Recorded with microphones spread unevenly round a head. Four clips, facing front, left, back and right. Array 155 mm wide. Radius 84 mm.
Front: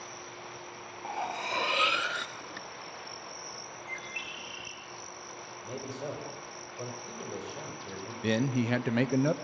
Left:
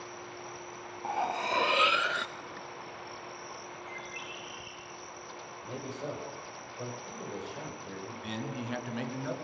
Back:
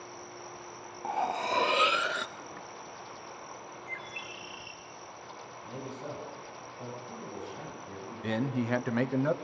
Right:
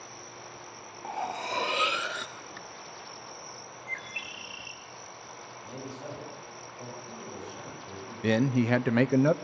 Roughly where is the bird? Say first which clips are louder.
Right 1 dB, front 1 dB; right.